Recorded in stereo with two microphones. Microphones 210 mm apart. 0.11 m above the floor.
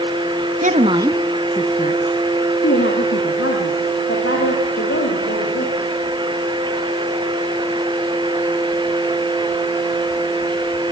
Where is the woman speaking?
40° right (ahead or behind), 1.4 m; by 5.7 s 80° left, 6.5 m.